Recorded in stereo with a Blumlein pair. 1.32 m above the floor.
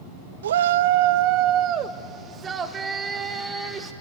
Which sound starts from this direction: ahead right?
A shout, at 0.4 s.